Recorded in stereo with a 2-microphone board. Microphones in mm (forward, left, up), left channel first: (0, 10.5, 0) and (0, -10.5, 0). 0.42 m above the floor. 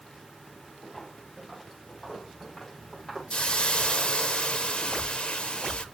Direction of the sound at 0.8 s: Centre (ahead or behind).